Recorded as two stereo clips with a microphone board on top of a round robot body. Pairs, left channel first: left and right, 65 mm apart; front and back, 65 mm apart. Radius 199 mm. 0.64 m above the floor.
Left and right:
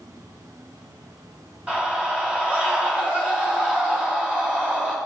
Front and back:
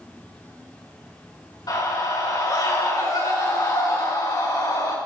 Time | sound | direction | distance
0.0 | an insect | 65° right | 4 m
1.7 | a scream | 15° right | 8.5 m